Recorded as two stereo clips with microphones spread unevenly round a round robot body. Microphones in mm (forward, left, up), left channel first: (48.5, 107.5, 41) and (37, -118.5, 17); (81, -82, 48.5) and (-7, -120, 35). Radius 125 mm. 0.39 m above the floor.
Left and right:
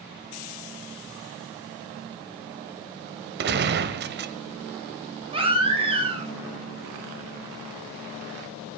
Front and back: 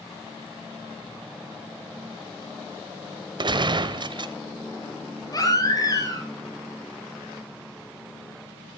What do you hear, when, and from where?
3.4 s a gunshot: 130° right, 1.2 m
5.3 s a baby crying: 25° right, 4.5 m